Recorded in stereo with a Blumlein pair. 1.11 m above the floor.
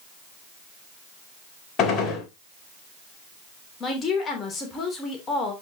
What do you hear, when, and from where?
1.8 s a gunshot: 25° left, 3 m
3.8 s a woman speaking: 20° left, 3 m